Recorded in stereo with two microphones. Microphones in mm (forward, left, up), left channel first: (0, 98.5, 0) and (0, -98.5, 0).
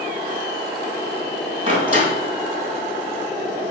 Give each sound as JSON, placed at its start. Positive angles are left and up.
{"t": 1.7, "sound": "a door slam", "side_deg": -35, "distance_m": 3.0}